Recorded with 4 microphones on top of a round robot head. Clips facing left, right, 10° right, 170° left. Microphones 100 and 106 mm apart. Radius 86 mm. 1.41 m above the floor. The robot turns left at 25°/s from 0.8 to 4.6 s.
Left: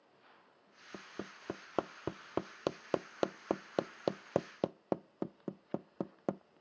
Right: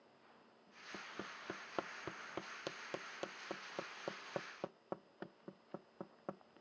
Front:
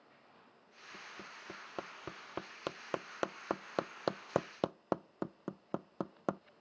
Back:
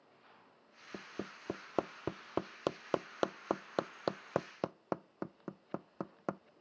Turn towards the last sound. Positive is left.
turn(degrees=65)